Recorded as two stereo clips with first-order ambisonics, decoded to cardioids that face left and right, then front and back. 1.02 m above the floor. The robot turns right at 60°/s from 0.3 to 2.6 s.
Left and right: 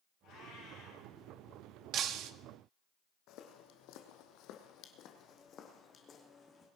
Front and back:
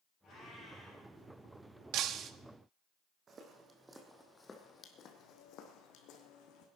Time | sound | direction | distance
0.2 | a cat meowing | 55° left | 7 m
1.9 | breaking glass | 145° right | 0.6 m
3.3 | footsteps | 120° left | 2 m